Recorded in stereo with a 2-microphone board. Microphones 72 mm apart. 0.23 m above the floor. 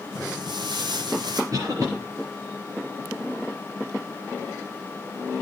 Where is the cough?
55° right (ahead or behind), 4.5 m.